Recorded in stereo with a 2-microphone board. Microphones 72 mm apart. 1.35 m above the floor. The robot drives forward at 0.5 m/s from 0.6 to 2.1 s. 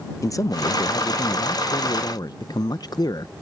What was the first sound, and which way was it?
A man speaking, 50° left (ahead or behind).